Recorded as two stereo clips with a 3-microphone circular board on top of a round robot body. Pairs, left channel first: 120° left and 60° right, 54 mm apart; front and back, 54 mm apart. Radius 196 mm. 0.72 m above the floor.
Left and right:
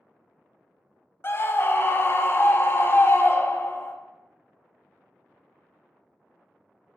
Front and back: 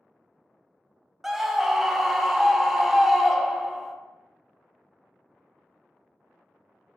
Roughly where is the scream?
Left.